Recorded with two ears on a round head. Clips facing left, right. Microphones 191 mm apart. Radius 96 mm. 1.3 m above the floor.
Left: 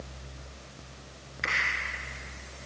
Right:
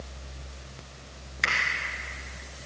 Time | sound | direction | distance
1.4 | a finger snap | 60° right (ahead or behind) | 1.9 m